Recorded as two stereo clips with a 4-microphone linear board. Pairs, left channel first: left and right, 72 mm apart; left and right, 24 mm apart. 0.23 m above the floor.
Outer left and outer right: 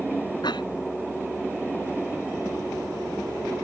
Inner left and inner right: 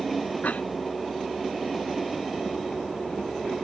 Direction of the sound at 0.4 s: 80° left.